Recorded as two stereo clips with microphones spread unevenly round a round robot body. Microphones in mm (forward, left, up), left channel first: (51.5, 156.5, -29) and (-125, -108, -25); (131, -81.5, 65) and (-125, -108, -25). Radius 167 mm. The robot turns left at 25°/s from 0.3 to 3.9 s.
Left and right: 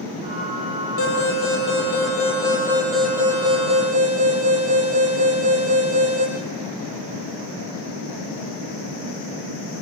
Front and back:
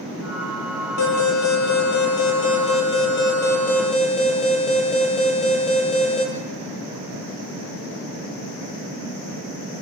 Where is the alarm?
15° left, 8 m; by 6.2 s 55° right, 8 m.